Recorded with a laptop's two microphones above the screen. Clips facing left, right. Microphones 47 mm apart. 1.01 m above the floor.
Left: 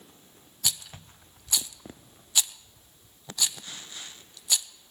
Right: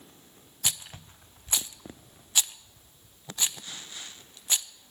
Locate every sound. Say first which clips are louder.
0.6 s a rattle: even; 30° right (ahead or behind), 0.5 m